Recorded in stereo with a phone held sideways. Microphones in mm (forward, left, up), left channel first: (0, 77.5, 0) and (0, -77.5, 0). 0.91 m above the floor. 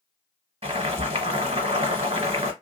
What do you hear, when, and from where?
0.6 s boiling: 40° right (ahead or behind), 1.8 m